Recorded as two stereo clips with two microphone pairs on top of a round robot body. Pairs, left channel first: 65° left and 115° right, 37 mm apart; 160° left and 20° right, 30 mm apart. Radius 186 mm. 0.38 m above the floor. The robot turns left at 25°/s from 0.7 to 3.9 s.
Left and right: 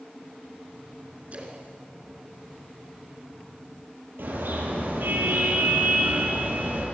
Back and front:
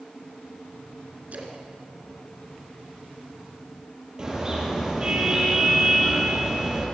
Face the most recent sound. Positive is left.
turn(degrees=-85)